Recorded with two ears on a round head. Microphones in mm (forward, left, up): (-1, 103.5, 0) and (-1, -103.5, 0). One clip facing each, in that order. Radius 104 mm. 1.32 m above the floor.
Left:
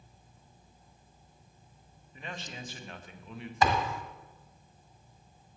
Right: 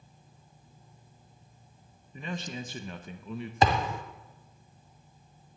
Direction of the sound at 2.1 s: 85° right.